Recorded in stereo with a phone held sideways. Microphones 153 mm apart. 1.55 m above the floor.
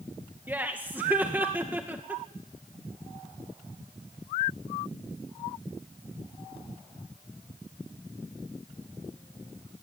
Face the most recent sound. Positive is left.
turn(degrees=-10)  # may be behind; listen again after turning